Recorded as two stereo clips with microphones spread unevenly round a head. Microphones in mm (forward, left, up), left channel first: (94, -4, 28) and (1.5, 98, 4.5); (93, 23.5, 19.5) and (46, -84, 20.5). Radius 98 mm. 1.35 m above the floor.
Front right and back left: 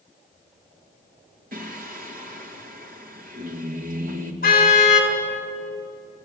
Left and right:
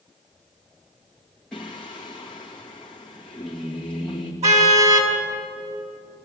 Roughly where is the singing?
Behind left.